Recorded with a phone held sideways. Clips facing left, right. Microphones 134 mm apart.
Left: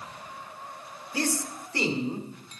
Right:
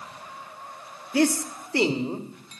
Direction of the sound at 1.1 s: 75° right (ahead or behind).